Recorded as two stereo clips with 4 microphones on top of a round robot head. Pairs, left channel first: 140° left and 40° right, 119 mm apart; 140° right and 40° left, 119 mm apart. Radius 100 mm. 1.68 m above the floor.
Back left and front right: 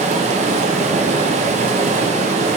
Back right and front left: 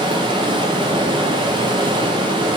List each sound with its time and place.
0.0 s running water: 10° right, 0.8 m